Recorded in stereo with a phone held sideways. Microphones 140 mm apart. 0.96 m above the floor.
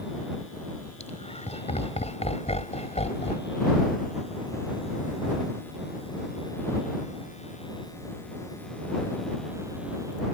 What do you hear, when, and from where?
1.0 s laughter: 55° left (ahead or behind)